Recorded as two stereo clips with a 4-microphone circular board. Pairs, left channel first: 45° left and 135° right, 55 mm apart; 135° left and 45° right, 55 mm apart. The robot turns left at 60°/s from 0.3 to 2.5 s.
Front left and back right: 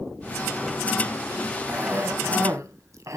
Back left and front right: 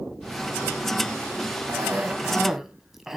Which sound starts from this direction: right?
A cough, at 1.7 s.